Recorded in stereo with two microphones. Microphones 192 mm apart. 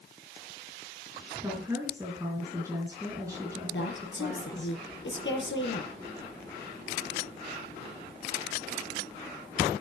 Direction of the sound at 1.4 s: 15° right (ahead or behind).